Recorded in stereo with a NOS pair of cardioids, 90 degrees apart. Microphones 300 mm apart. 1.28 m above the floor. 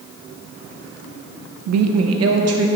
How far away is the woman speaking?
About 0.7 m.